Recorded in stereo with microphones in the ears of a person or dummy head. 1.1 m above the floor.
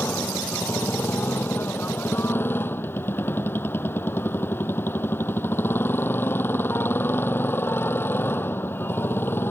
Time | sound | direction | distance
0.0 | a motorcycle | 10° left (ahead or behind) | ?